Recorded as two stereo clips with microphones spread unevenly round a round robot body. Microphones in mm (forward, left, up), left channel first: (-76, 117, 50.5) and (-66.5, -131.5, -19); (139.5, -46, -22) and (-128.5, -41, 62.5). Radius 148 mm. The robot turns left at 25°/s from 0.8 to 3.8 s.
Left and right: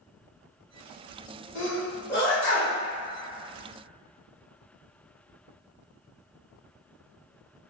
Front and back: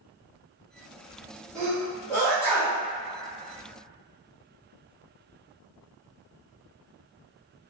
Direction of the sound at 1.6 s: 55° left.